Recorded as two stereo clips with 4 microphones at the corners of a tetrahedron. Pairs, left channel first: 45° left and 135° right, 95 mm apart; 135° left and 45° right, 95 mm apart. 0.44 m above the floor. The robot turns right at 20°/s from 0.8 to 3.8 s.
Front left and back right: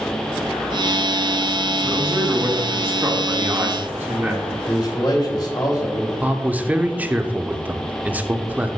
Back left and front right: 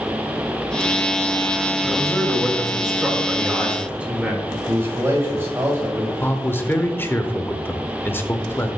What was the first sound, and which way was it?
A man speaking, 145° right.